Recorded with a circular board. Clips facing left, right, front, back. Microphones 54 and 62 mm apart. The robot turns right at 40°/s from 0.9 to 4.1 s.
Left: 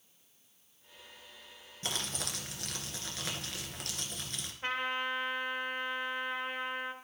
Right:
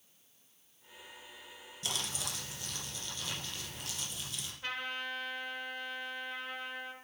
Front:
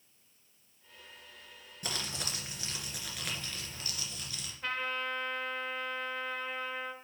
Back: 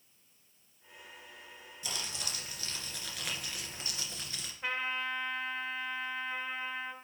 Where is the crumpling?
35° left, 2.5 m; by 4.5 s 125° left, 2.5 m.